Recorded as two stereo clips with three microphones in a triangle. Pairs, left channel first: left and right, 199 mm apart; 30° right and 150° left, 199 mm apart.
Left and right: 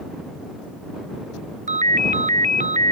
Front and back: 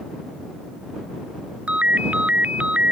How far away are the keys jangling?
No keys jangling in this recording.